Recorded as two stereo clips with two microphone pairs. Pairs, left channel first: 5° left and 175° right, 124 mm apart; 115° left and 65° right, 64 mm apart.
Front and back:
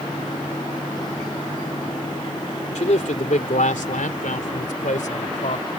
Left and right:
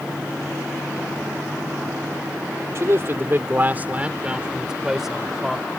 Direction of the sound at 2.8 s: 20° right.